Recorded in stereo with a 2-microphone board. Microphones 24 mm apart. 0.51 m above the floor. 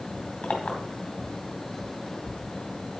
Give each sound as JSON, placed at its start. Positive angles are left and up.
{"t": 0.4, "sound": "a clink", "side_deg": 50, "distance_m": 2.0}